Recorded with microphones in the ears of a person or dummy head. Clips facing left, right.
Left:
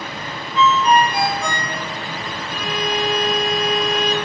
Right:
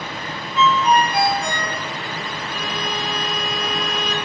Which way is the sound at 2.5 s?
5° left (ahead or behind).